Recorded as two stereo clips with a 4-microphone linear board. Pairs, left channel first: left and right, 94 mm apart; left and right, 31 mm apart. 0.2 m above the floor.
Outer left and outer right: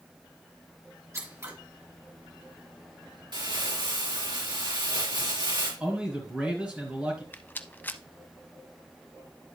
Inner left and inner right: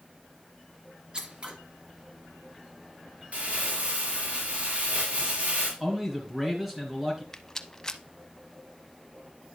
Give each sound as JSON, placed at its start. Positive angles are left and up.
{"t": 1.1, "sound": "scissors", "side_deg": -35, "distance_m": 2.5}
{"t": 3.3, "sound": "crumpling", "side_deg": -60, "distance_m": 4.0}
{"t": 5.8, "sound": "a man speaking", "side_deg": -15, "distance_m": 3.0}
{"t": 7.3, "sound": "a rattle", "side_deg": 20, "distance_m": 0.6}